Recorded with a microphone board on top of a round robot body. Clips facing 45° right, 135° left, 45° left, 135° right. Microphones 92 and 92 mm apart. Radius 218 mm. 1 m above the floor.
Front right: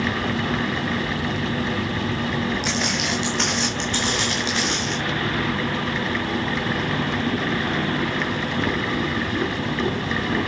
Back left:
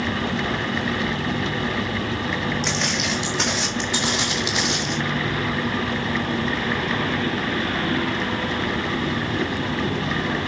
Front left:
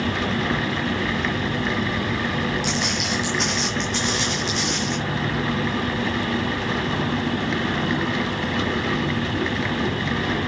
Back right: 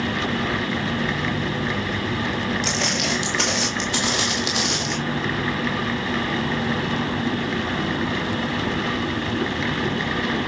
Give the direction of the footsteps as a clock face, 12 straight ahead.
4 o'clock.